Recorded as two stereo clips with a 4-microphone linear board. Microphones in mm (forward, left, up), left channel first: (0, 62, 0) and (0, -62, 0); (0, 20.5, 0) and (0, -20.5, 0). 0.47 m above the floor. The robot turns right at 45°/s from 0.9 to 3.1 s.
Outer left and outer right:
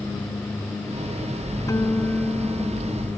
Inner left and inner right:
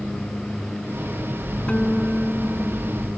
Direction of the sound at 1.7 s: 155° left.